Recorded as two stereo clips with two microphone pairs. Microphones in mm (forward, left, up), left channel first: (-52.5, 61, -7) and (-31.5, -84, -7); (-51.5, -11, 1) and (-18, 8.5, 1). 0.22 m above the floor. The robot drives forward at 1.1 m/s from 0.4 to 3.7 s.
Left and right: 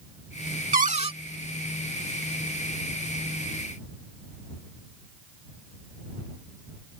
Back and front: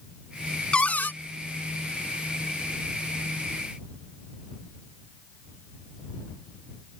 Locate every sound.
0.7 s a cupboard door: 95° right; by 1.1 s 135° right